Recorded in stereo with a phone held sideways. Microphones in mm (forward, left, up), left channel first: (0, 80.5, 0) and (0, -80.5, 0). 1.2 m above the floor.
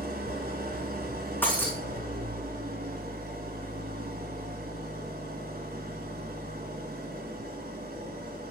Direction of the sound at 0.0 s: 70° right (ahead or behind).